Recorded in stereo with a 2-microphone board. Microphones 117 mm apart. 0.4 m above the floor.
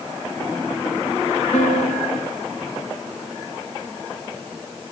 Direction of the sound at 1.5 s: 85° left.